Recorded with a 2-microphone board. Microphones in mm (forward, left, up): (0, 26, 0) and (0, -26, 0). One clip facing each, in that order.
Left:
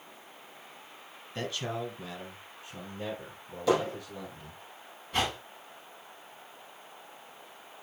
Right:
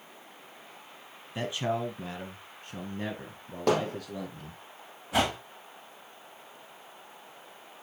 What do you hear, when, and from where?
1.4 s a man speaking: 10° right (ahead or behind), 1.1 m; by 4.6 s 55° right (ahead or behind), 3 m
3.7 s hammering: 55° right (ahead or behind), 3.5 m
5.1 s a whoosh: 90° right, 3 m